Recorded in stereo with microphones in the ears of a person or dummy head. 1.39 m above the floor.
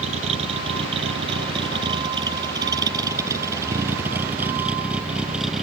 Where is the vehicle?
35° right (ahead or behind); by 5.6 s 5° right (ahead or behind).